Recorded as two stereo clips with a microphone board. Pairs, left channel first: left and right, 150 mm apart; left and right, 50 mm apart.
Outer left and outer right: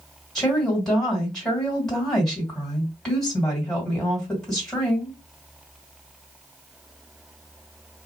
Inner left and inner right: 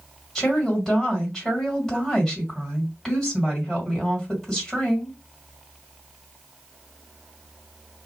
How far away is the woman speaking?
About 2.0 m.